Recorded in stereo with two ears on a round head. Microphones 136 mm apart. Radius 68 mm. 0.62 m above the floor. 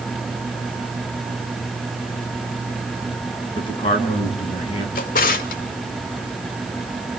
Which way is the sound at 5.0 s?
65° left (ahead or behind).